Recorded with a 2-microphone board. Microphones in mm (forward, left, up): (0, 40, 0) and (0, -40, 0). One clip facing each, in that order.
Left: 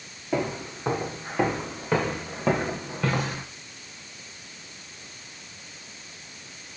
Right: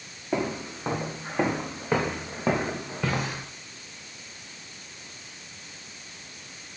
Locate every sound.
0.3 s footsteps: 10° right (ahead or behind), 6 m; by 3.5 s centre (ahead or behind), 3 m